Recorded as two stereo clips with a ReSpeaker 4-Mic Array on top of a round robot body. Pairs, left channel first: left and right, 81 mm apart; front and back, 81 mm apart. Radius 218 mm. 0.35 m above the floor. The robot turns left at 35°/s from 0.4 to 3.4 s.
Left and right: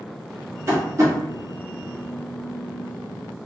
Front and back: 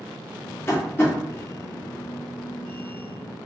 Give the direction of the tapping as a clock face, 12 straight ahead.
2 o'clock.